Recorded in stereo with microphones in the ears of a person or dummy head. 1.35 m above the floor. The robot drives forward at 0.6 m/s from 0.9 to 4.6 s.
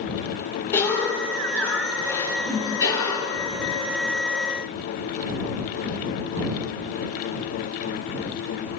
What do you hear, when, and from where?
0.7 s a cough: 15° left (ahead or behind), 5.5 m; by 3.4 s 20° left (ahead or behind), 4 m
2.4 s a whoosh: 10° right (ahead or behind), 6 m